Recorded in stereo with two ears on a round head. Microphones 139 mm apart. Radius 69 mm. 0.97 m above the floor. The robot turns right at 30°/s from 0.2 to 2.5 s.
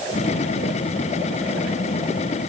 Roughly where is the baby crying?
No baby crying in this recording.